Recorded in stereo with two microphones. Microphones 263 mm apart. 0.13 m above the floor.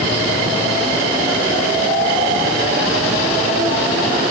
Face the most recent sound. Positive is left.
No sound to turn to.